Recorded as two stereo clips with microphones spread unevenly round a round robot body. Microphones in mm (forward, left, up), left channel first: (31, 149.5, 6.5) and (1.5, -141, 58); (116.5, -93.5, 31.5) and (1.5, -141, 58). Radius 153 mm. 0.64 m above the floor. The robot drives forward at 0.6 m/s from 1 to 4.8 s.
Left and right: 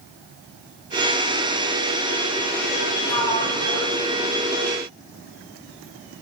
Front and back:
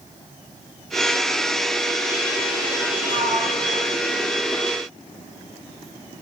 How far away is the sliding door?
About 6 m.